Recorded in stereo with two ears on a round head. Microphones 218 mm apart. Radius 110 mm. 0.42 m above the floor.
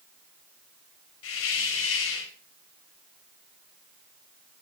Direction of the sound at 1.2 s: 60° left (ahead or behind).